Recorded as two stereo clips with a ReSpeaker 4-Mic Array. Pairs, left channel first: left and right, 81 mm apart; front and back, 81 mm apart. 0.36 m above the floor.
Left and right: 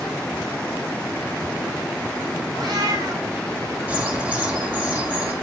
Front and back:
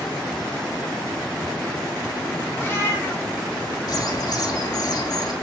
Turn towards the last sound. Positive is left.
turn(degrees=-25)